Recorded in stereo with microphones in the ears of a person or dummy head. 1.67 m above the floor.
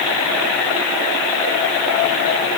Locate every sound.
Only background noise.